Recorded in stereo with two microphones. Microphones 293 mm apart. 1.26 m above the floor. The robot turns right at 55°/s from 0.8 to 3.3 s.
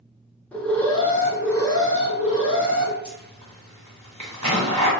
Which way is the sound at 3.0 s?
75° right (ahead or behind).